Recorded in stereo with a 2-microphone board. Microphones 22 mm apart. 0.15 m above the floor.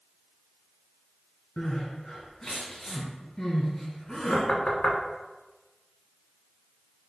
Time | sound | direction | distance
1.6 | crying | 20° left (ahead or behind) | 1.6 m
4.3 | knocking | 40° left (ahead or behind) | 0.9 m